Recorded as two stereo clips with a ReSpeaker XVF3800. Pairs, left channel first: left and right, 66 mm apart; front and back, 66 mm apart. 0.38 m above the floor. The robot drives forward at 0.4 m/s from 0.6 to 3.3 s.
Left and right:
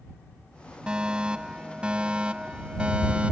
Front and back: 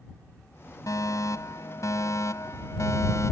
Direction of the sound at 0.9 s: 15° right.